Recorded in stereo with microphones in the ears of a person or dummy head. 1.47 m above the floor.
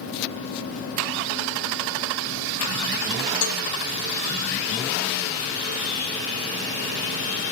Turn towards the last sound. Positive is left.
turn(degrees=75)  # may be behind; listen again after turning